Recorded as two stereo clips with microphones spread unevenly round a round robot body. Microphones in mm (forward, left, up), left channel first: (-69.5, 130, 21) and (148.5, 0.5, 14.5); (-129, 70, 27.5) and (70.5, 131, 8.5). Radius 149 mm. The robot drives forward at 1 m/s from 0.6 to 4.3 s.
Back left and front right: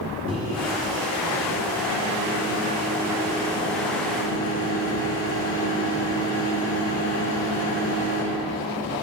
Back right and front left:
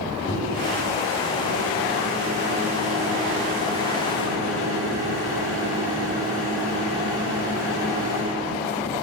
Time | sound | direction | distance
0.3 | a microwave | 105° right | 2.5 m